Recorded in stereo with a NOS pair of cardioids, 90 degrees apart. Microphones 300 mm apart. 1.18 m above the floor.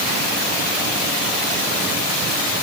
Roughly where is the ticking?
No ticking in this recording.